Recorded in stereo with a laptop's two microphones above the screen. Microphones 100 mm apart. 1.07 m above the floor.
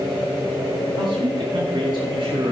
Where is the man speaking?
50° right (ahead or behind), 9.5 m.